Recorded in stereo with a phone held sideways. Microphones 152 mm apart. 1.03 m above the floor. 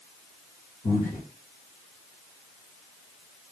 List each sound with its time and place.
0.8 s breathing: 65° left (ahead or behind), 1.2 m